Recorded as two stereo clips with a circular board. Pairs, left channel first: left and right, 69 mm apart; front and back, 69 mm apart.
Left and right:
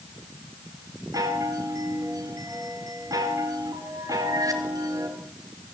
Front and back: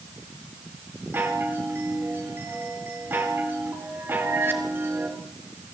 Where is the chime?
120° right, 3.5 m.